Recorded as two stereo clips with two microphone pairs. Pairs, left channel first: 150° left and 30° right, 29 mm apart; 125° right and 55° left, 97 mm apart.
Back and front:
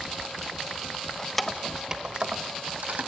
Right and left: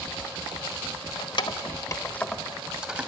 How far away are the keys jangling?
About 1.2 m.